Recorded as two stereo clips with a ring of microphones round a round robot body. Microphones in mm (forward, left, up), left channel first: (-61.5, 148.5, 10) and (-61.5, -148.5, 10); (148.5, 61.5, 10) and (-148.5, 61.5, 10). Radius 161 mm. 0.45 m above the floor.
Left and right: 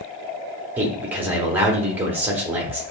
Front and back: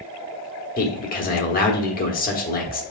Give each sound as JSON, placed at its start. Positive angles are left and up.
{"t": 0.8, "sound": "a man speaking", "azimuth_deg": -10, "distance_m": 1.0}